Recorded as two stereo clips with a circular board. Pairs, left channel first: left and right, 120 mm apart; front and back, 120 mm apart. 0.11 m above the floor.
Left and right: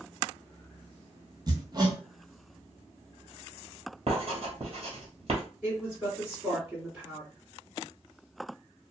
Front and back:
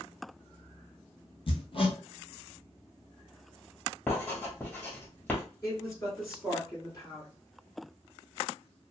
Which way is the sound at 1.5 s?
35° right.